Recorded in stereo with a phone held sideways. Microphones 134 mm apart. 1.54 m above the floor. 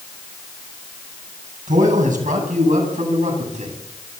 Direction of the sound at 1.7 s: 70° right (ahead or behind).